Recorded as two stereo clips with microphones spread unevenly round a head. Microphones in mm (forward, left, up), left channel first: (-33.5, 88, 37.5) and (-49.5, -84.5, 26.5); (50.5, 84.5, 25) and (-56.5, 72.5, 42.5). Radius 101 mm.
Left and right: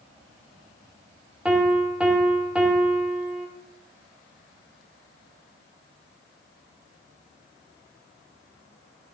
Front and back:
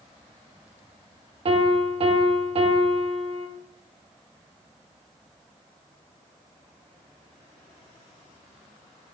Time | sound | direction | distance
1.4 | a piano | straight behind | 1.1 m